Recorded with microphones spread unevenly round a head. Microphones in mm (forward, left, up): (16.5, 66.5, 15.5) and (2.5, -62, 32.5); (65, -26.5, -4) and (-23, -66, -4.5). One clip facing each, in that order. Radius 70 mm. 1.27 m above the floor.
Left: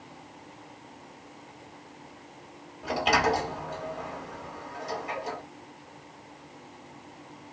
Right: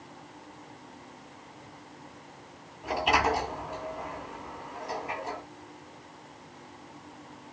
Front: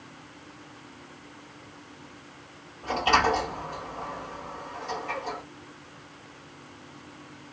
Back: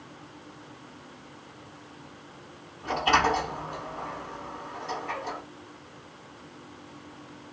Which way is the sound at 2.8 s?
100° left.